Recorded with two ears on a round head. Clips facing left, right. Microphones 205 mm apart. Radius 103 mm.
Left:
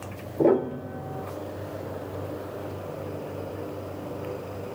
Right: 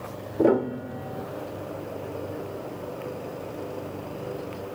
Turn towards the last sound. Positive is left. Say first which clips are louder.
# even
turn(degrees=-10)  # may be behind; listen again after turning